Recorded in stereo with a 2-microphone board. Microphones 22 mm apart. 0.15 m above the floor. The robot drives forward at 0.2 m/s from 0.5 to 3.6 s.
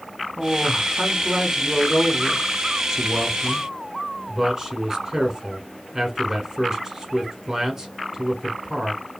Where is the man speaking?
20° right (ahead or behind), 1.1 m; by 9.0 s 15° right (ahead or behind), 1.3 m.